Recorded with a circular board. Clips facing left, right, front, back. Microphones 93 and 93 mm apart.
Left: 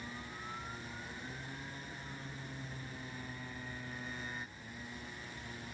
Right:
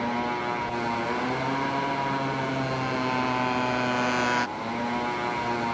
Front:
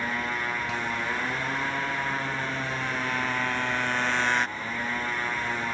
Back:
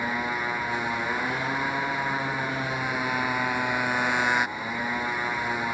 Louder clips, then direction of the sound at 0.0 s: Right 20 dB, back 2 dB; 100° right.